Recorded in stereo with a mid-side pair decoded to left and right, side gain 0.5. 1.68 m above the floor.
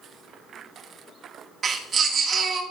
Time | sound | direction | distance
1.6 | a baby crying | 50° right | 3 m